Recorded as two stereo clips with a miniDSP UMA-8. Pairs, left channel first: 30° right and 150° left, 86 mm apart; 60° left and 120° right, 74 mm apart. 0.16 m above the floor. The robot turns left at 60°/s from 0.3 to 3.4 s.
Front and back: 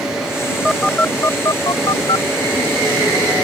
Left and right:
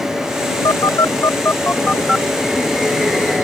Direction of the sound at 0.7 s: 60° left.